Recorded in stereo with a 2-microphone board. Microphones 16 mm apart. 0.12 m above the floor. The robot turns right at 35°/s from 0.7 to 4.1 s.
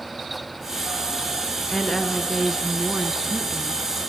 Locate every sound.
1.7 s a woman speaking: 25° left (ahead or behind), 1.5 m; by 3.8 s 5° right (ahead or behind), 1.5 m